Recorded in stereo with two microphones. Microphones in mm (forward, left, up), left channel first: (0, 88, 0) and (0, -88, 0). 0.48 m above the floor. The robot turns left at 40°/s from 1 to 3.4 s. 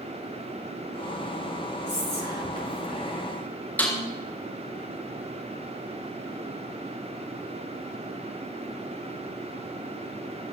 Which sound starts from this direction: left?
Whispering, at 1.9 s.